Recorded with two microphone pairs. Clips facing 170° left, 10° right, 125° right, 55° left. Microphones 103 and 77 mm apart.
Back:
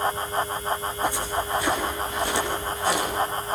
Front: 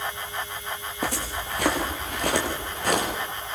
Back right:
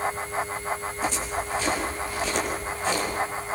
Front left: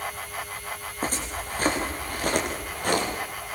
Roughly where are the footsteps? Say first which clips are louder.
Back 2 dB, back right 1 dB; ahead.